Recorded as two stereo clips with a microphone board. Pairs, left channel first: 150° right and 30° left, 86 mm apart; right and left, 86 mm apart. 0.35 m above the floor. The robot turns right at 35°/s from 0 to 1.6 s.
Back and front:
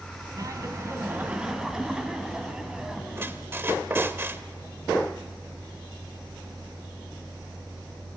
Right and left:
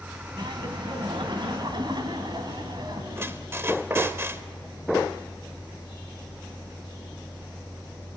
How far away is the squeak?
About 0.8 m.